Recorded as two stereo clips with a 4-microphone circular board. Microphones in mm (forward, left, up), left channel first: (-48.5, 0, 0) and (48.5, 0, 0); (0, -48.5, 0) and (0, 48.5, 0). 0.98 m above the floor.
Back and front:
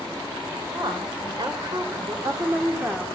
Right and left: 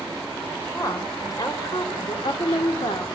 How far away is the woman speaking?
About 5 m.